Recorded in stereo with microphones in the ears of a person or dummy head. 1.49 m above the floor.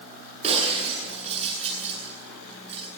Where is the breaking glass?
35° right (ahead or behind), 8.5 m.